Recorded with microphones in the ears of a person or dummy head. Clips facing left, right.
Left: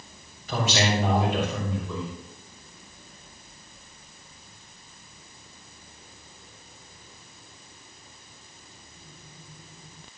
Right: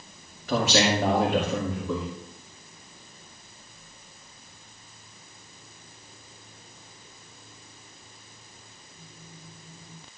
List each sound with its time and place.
0.5 s a man speaking: 55° right (ahead or behind), 2.5 m